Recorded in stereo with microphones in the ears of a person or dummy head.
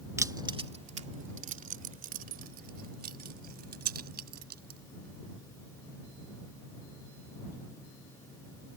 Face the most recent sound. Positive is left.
turn(degrees=-50)  # may be behind; listen again after turning